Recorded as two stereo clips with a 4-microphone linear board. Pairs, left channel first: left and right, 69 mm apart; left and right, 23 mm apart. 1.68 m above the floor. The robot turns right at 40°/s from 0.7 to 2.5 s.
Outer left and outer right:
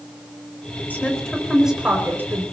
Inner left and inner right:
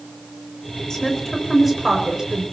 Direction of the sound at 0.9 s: 25° left (ahead or behind).